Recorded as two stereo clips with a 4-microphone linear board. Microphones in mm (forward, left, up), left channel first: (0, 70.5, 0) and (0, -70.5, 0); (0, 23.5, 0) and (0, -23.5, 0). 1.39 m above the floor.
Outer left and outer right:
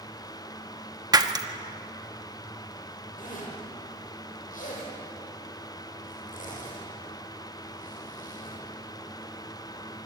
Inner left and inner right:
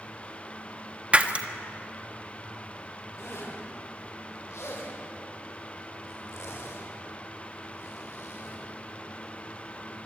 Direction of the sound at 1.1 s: 30° right (ahead or behind).